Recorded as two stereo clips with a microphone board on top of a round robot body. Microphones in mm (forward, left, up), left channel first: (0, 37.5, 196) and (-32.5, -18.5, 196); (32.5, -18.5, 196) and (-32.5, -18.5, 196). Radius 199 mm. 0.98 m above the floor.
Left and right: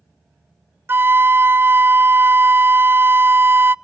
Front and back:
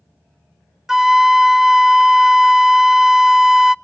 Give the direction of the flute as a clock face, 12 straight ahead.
3 o'clock.